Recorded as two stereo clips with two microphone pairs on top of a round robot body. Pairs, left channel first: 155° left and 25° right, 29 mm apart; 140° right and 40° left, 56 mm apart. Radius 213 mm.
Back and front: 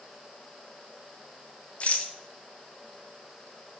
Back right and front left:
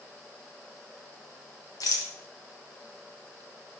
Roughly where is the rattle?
Behind right.